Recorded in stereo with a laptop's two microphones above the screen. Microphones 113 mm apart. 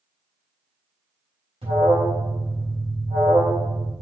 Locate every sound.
1.6 s an alarm: 65° right (ahead or behind), 3.5 m